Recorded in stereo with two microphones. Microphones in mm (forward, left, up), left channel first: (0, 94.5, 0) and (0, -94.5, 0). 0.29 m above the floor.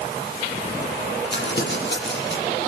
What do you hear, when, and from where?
1.3 s crumpling: 70° left (ahead or behind), 8 m